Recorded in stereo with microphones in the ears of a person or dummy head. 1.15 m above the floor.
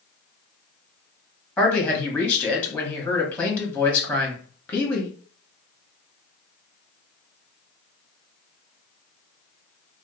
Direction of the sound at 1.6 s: 5° left (ahead or behind).